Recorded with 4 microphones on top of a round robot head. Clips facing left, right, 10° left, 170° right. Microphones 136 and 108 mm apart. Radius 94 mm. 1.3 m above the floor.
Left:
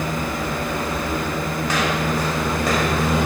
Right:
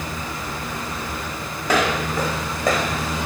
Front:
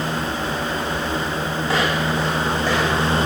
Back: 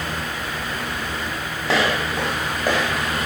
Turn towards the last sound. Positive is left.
turn(degrees=-100)